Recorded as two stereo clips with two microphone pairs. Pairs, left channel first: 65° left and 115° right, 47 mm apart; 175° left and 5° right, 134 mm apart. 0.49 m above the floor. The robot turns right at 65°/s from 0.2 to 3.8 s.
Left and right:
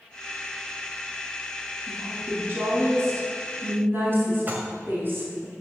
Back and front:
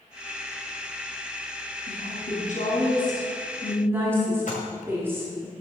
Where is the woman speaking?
160° left, 3.5 m; by 5.5 s 75° right, 3.5 m.